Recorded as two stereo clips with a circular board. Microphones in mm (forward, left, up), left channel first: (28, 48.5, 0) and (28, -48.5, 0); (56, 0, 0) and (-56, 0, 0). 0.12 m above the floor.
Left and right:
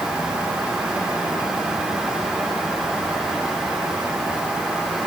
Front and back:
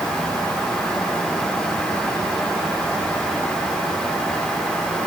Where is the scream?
No scream in this recording.